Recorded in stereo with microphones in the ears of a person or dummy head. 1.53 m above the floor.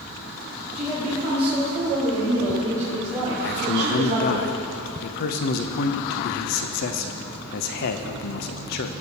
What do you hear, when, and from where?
0.7 s a woman speaking: 5° right (ahead or behind), 5.5 m; by 4.4 s 35° right (ahead or behind), 1.4 m
3.4 s a man speaking: 55° left (ahead or behind), 0.9 m